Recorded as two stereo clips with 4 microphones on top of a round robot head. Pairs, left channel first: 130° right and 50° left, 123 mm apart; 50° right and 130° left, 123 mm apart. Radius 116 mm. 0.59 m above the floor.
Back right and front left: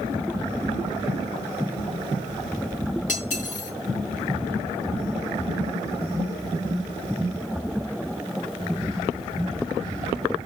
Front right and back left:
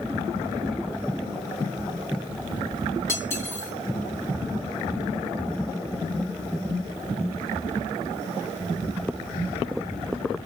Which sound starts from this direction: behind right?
Cutlery clinking, at 3.1 s.